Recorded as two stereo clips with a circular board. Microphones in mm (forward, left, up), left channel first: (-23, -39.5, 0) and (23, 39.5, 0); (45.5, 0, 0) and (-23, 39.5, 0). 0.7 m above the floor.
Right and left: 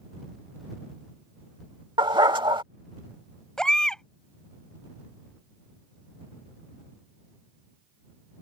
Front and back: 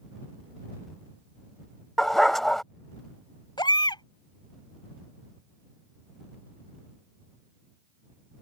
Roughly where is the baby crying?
Ahead right.